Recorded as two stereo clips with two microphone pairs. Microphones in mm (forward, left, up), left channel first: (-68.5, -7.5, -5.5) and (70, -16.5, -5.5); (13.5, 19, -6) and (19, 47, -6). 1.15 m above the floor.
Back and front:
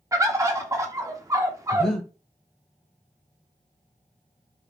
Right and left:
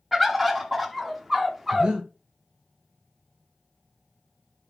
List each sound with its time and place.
0.1 s a bird: 15° left, 0.7 m
1.7 s breathing: 95° left, 1.0 m